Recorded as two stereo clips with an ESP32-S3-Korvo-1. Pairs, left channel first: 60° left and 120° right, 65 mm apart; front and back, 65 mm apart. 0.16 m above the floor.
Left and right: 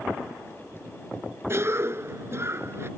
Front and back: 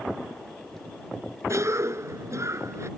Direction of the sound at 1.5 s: 155° right.